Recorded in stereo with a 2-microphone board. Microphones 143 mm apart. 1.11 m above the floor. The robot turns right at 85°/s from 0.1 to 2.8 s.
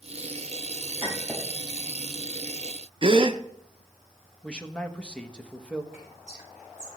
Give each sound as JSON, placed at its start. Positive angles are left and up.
{"t": 1.0, "sound": "a clink", "side_deg": -35, "distance_m": 4.0}
{"t": 3.0, "sound": "a gasp", "side_deg": -40, "distance_m": 0.6}
{"t": 4.4, "sound": "a man speaking", "side_deg": 5, "distance_m": 1.0}
{"t": 5.9, "sound": "whispering", "side_deg": 75, "distance_m": 5.5}